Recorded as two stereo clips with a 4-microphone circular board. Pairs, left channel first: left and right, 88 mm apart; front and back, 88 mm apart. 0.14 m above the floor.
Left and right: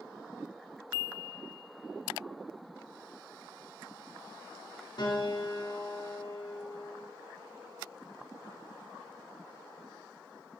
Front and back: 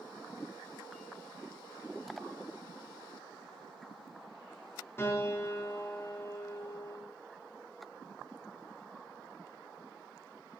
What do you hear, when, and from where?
5.0 s a piano: 60° left, 6 m